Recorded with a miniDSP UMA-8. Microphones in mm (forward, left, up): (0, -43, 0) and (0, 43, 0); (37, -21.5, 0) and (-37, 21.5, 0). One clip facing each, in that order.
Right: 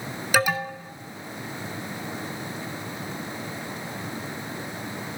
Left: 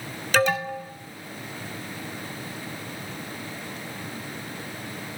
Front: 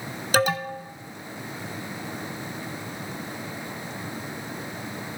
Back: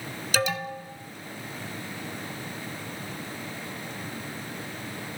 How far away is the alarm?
About 1.1 m.